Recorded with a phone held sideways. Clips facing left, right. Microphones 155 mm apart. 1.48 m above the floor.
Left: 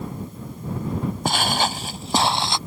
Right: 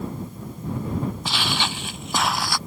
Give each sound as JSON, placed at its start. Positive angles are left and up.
{"t": 1.2, "sound": "footsteps", "side_deg": 50}